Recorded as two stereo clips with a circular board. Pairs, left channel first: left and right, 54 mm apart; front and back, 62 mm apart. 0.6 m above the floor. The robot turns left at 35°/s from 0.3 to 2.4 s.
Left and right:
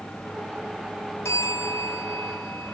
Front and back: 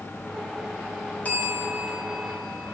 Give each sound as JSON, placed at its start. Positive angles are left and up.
{"t": 1.2, "sound": "a bell", "azimuth_deg": 60, "distance_m": 3.5}